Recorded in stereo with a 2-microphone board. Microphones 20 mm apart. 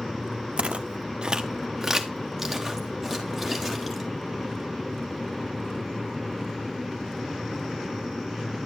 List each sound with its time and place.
0.6 s footsteps: 75° right (ahead or behind), 0.7 m; by 4.1 s 10° left (ahead or behind), 2.5 m